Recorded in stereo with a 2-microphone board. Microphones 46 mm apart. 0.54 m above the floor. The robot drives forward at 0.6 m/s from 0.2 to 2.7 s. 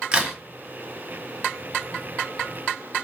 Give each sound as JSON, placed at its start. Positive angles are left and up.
{"t": 0.1, "sound": "a crack", "side_deg": -20, "distance_m": 1.7}